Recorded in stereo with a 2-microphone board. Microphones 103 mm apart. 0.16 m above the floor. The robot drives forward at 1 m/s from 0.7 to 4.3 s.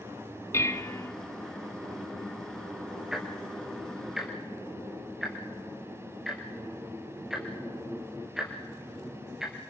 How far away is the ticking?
About 3.5 m.